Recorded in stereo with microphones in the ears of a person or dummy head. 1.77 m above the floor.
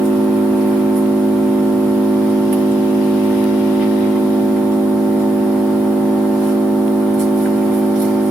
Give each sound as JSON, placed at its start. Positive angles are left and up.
{"t": 0.0, "sound": "an engine running", "side_deg": 5, "distance_m": 1.5}